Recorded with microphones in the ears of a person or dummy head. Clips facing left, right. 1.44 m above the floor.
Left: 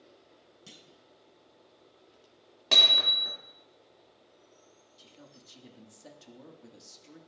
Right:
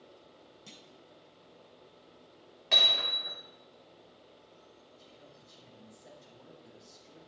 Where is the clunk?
10° left (ahead or behind), 0.5 m.